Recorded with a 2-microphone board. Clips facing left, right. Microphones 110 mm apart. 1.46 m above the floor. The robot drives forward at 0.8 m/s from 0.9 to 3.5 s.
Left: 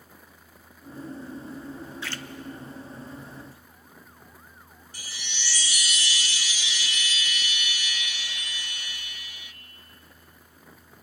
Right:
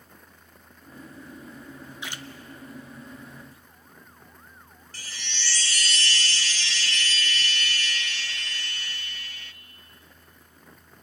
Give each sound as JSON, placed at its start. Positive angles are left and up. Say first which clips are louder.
{"t": 2.0, "sound": "a splash", "louder": "even", "side_deg": -20, "distance_m": 0.6}
{"t": 4.9, "sound": "a chime", "louder": "right 2 dB", "side_deg": 15, "distance_m": 0.8}